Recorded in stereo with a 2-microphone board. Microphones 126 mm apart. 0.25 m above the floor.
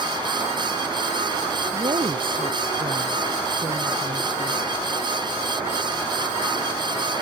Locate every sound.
1.7 s a woman speaking: 45° right (ahead or behind)